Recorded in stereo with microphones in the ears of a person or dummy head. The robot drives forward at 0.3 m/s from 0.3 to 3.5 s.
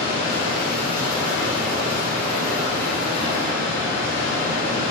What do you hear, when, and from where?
0.0 s running water: 30° left (ahead or behind), 1.6 m